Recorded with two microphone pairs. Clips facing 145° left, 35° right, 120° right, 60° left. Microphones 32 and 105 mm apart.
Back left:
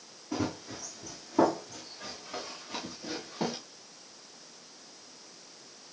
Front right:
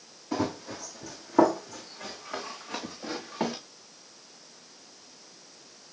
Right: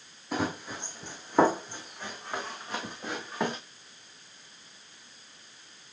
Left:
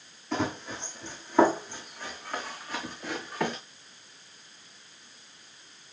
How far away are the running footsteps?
About 2.5 m.